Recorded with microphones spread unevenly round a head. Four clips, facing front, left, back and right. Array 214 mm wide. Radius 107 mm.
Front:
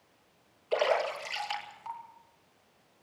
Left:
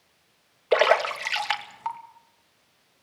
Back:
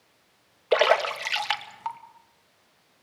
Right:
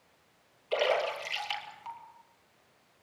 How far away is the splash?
About 2.5 m.